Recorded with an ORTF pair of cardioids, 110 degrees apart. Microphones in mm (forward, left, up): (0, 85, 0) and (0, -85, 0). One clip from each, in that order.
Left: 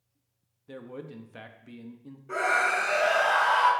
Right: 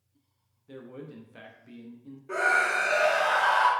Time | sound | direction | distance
0.7 | a man speaking | 20° left | 0.6 m
2.3 | a scream | 10° right | 1.5 m